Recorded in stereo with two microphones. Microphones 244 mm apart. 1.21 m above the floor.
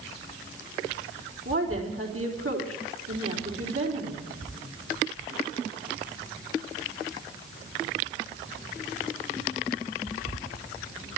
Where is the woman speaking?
65° right (ahead or behind), 4 m.